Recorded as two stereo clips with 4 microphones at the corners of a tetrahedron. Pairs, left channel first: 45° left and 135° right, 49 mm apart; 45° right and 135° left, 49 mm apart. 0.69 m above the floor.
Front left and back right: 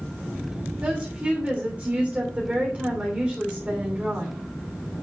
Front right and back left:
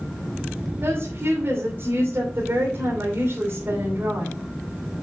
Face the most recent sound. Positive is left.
turn(degrees=165)